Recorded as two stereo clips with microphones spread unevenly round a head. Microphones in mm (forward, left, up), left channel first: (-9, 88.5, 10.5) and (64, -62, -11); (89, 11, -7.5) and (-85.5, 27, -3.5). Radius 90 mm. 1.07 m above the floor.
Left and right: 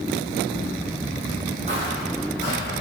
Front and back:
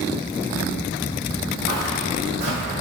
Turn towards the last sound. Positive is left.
turn(degrees=-140)